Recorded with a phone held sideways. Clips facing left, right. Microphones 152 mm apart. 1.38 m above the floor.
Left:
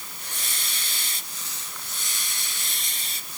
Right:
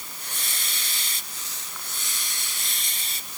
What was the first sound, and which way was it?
Only background noise.